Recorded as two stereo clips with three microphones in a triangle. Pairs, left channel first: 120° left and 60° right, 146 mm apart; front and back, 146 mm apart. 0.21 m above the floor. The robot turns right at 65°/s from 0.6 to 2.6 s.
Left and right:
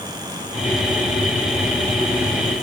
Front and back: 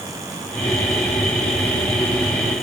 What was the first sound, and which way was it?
Only background noise.